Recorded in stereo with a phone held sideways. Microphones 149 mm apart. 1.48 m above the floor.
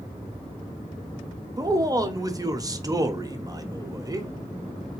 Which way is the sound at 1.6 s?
25° right (ahead or behind).